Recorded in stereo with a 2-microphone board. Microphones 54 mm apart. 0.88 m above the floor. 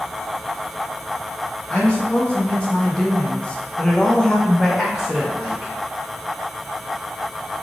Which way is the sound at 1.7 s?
20° left (ahead or behind).